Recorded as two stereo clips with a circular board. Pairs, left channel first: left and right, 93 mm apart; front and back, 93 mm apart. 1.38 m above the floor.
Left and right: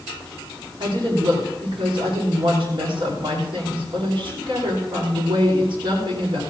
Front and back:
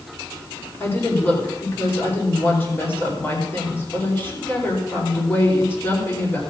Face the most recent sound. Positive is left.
turn(degrees=-70)